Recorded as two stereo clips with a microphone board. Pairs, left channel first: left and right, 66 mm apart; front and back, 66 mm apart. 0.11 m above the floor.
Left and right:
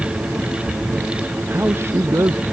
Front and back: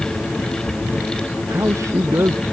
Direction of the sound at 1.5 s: 140° right.